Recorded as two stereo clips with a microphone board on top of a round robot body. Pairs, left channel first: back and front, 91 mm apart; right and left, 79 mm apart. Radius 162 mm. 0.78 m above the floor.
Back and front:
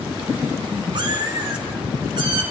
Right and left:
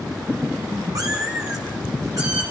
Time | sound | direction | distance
0.9 | a cat meowing | 40° left | 2 m